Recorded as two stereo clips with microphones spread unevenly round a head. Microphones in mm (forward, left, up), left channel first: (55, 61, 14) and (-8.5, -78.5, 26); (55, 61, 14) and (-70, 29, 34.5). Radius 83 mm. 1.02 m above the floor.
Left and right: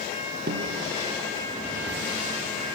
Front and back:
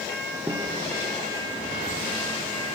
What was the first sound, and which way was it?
A snare drum, 90° right.